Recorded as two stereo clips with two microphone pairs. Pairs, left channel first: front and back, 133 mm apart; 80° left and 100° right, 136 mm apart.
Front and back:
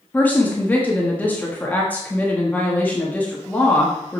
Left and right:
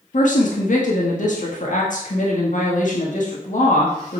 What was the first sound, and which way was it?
A woman speaking, 80° left.